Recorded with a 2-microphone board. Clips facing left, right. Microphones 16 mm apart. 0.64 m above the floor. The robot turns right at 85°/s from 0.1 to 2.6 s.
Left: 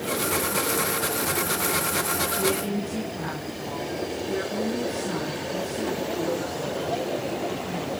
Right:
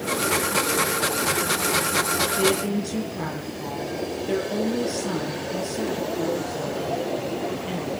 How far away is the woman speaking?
About 7 m.